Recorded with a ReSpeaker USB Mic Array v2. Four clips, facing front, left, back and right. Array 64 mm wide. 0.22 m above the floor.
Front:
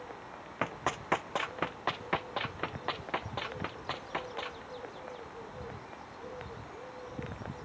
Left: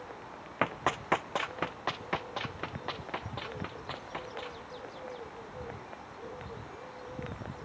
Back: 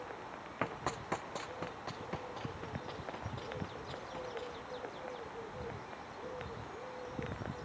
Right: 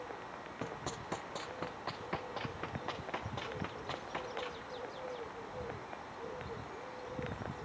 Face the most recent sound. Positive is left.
turn(degrees=5)